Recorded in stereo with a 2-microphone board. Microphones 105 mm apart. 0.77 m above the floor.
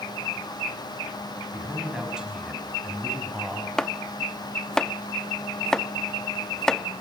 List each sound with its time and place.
1.5 s a man speaking: 10° right (ahead or behind), 5.5 m; by 3.7 s centre (ahead or behind), 4 m
3.8 s chopping: 5° left (ahead or behind), 0.5 m